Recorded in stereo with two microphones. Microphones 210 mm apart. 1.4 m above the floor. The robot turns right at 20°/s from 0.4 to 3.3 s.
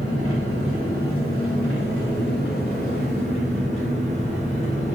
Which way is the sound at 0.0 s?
90° left.